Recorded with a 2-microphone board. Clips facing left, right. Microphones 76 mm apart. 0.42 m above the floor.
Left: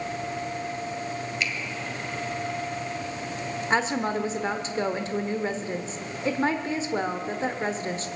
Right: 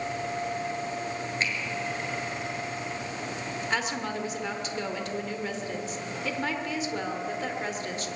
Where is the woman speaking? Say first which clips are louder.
Left 6 dB; 30° left (ahead or behind), 1.0 m.